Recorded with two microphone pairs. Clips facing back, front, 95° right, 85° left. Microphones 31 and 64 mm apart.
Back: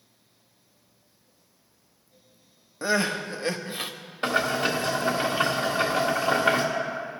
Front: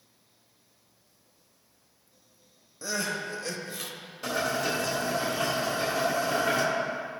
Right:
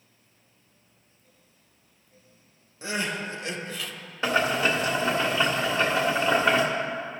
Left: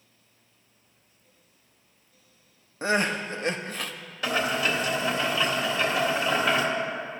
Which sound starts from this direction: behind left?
Crying, at 2.8 s.